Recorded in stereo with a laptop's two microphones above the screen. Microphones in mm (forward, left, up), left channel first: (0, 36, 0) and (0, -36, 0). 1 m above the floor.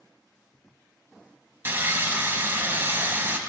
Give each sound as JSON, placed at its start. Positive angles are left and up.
{"t": 1.6, "sound": "sawing", "side_deg": -30, "distance_m": 1.1}